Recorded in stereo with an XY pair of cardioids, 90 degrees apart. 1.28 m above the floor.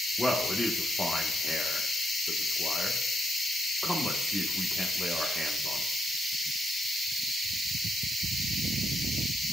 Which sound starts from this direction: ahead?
A man speaking, at 0.2 s.